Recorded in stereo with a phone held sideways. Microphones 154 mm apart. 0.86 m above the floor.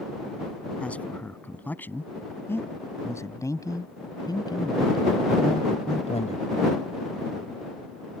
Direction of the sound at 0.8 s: 10° left (ahead or behind).